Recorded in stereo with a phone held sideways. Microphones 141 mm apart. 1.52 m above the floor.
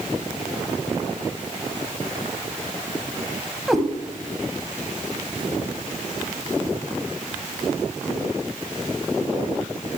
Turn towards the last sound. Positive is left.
turn(degrees=0)  # may be behind; listen again after turning